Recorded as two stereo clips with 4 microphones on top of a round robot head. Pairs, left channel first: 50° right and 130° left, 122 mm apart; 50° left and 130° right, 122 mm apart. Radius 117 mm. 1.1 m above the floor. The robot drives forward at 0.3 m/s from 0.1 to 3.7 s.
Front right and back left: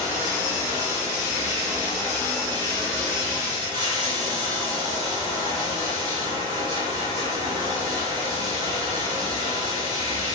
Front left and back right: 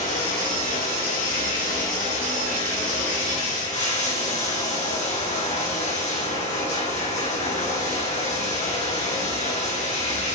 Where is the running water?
60° left, 4.5 m; by 10.3 s 75° left, 4 m.